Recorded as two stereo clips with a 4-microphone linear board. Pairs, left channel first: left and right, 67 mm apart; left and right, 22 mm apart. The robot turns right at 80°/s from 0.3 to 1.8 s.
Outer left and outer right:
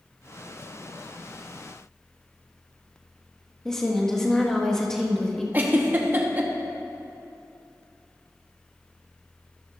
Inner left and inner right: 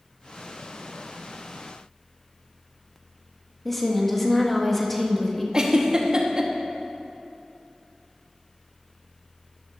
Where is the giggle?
30° right (ahead or behind), 1.0 m.